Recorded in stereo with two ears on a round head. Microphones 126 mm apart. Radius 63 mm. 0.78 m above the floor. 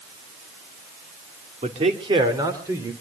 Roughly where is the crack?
No crack in this recording.